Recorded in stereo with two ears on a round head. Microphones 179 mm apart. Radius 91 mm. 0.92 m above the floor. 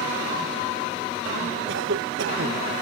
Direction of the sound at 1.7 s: 60° right (ahead or behind).